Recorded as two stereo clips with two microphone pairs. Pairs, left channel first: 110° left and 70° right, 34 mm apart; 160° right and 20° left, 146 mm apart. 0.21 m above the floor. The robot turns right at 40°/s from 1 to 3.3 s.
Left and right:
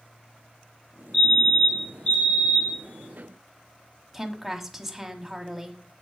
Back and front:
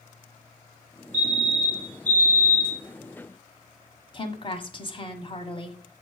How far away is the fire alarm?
About 4 m.